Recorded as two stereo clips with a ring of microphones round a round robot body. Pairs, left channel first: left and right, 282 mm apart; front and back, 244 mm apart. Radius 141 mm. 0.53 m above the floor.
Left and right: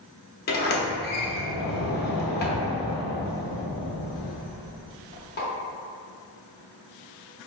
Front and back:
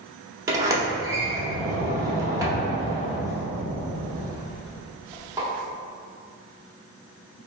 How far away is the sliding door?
About 0.8 m.